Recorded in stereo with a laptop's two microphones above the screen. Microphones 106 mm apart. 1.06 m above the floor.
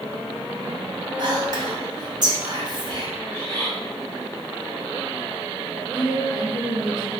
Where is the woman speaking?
45° left (ahead or behind), 1.0 m.